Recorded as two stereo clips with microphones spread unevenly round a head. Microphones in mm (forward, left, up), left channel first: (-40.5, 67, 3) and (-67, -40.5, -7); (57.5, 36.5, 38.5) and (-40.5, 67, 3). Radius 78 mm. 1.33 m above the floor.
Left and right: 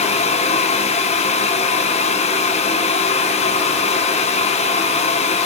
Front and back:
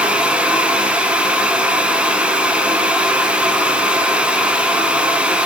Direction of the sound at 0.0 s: 95° left.